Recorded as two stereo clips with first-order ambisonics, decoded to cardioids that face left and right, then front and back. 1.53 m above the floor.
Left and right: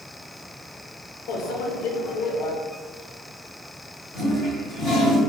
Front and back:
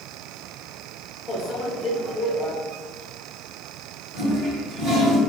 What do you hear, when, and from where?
1.3 s a microwave: 70° left, 0.6 m
4.1 s a toilet flushing: 155° left, 1.7 m